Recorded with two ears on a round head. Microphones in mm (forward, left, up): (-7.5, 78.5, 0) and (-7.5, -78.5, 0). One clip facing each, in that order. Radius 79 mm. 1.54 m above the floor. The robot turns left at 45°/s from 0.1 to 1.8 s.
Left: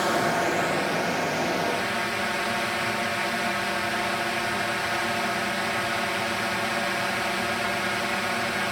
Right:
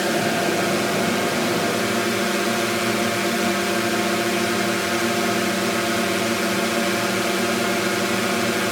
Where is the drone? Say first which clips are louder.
Right 3 dB; 35° right; by 8.7 s 110° right.